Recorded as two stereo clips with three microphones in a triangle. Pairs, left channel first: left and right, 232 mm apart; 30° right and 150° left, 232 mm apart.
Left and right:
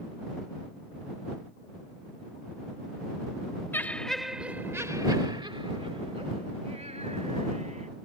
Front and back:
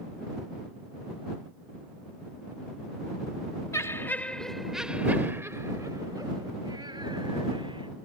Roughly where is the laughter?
Ahead left.